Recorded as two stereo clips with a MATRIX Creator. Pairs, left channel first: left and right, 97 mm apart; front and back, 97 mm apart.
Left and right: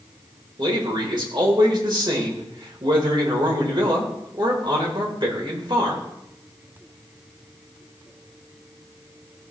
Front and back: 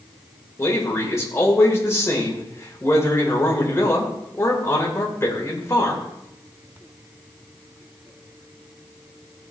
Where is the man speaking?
60° right, 2.5 m.